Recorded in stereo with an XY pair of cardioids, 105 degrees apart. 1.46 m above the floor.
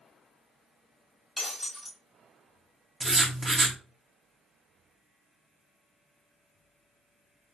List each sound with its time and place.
1.4 s breaking glass: 5° left, 1.6 m
3.0 s writing: 20° right, 0.8 m